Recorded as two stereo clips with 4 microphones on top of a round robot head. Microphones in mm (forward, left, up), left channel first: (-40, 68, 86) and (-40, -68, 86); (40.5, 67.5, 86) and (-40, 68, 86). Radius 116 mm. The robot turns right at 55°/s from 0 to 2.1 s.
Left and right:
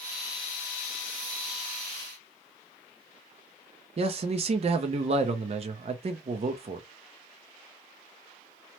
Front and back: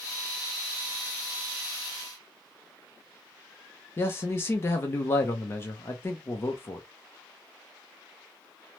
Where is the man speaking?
55° right, 0.5 m.